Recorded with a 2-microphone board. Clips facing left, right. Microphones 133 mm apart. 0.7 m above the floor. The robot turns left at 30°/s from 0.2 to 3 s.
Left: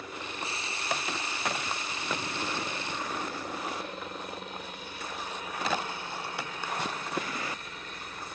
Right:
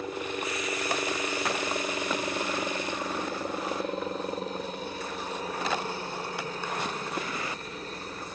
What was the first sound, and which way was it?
A helicopter, 50° right.